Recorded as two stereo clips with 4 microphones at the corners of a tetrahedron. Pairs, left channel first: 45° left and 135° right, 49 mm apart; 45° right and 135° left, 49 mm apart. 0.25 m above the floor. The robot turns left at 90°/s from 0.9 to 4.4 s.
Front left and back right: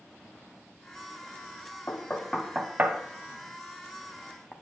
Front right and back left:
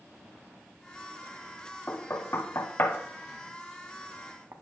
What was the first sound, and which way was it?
Knocking, 5° left.